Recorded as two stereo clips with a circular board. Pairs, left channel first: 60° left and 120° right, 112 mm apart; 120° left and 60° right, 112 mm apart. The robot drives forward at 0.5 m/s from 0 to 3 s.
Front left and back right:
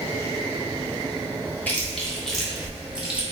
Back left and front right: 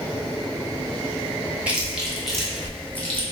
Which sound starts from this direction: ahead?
Chewing, at 1.7 s.